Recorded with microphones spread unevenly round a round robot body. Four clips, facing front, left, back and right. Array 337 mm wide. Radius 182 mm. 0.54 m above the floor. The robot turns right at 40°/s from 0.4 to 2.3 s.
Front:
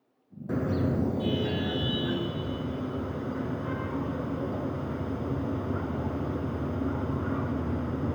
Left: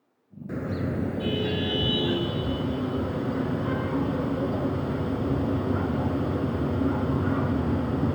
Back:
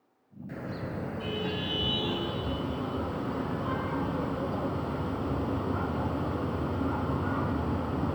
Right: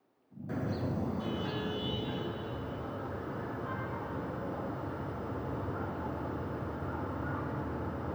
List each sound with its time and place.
0.5 s a car horn: 20° left, 3 m; by 8.2 s 90° left, 3 m